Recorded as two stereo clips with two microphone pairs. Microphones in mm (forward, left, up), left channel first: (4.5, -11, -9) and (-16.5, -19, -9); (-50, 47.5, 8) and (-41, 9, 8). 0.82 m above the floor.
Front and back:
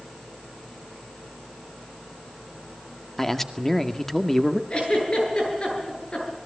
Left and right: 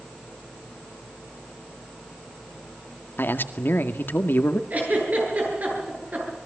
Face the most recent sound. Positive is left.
turn(degrees=-30)